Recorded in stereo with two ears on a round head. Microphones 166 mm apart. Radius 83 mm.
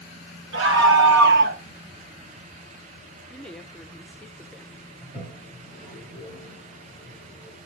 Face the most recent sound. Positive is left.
turn(degrees=0)  # may be behind; listen again after turning